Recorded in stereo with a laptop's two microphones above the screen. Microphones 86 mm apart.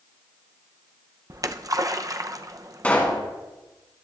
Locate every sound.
1.3 s a splash: 40° right (ahead or behind), 0.7 m
2.8 s a pop: 20° left (ahead or behind), 2.5 m